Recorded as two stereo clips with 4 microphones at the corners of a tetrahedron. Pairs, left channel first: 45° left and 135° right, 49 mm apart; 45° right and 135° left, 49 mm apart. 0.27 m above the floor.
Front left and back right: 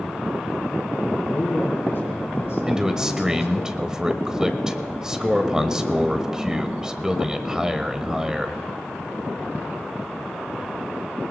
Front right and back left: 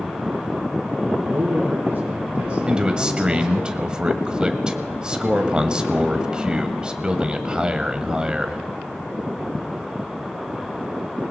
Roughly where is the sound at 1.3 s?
Left.